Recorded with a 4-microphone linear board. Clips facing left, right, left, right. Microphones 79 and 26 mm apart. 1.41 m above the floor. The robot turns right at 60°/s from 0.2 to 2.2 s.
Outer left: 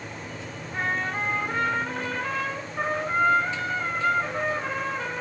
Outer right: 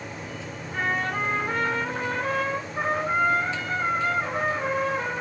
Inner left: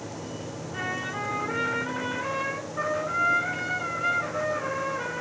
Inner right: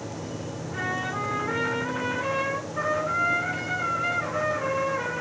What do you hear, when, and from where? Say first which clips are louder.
0.7 s a trumpet: outer right 1 dB, inner right 2 dB; 155° right, 3.5 m; by 5.2 s 65° right, 3.5 m